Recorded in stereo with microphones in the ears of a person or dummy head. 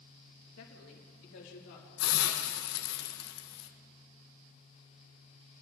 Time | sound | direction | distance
0.6 | a woman speaking | 80° left | 1.9 m
2.0 | a hiss | 75° left (ahead or behind) | 1.3 m